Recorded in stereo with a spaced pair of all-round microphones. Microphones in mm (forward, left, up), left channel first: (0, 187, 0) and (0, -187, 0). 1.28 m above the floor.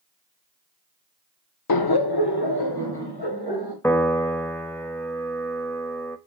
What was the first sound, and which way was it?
Laughter, 60° left (ahead or behind).